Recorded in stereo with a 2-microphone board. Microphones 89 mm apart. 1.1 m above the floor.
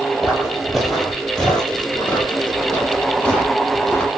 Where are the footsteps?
Centre (ahead or behind), 1.3 m; by 4.1 s 20° left (ahead or behind), 1.7 m.